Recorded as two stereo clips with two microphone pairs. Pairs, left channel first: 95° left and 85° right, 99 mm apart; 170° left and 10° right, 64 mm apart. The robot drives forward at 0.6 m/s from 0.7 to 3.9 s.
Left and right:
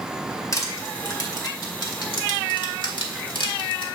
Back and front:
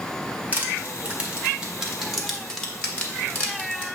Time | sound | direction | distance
0.5 | crushing | 50° left | 1.8 m